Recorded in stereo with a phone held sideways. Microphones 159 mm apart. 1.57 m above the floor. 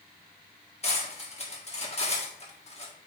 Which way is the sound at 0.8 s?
40° left (ahead or behind).